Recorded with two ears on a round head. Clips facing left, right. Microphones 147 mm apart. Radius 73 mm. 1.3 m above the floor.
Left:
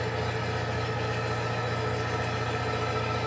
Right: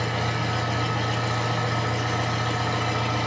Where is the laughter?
No laughter in this recording.